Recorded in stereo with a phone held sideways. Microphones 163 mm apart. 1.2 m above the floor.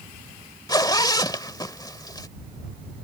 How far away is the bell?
No bell in this recording.